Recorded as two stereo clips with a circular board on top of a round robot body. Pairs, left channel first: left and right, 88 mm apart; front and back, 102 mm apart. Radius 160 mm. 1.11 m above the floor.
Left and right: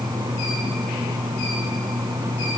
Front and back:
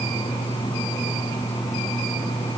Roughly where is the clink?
No clink in this recording.